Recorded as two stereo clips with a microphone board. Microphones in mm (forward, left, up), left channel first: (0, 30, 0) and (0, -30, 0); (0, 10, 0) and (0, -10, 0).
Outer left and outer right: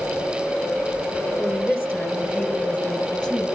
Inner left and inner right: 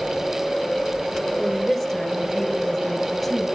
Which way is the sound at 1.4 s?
5° right (ahead or behind).